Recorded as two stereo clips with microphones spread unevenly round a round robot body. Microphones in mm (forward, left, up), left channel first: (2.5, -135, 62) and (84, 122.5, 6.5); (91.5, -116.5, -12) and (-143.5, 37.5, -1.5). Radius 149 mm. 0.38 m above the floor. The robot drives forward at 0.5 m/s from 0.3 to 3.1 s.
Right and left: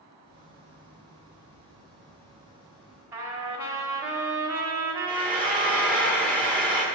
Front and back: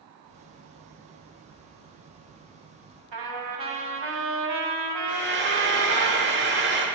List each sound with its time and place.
3.1 s a trumpet: 155° left, 1.4 m
5.1 s frying: 155° left, 1.3 m